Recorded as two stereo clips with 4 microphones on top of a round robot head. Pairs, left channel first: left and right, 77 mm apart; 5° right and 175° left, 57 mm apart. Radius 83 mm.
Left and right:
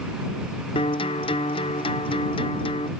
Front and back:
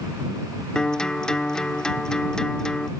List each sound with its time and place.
0.8 s a guitar: 70° left